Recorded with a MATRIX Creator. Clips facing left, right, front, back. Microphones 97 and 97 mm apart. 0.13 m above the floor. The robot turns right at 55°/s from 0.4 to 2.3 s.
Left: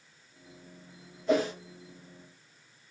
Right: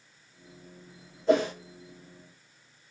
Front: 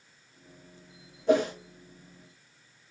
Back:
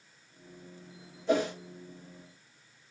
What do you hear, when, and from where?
1.3 s a whoosh: 35° right, 2.5 m; by 1.5 s 20° right, 2.5 m